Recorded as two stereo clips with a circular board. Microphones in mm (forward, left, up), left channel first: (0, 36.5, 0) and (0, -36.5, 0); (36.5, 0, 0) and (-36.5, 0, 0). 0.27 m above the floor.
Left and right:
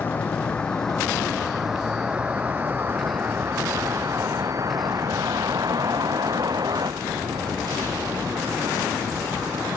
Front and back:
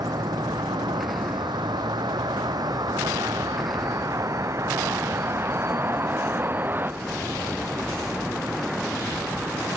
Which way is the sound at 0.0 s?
155° left.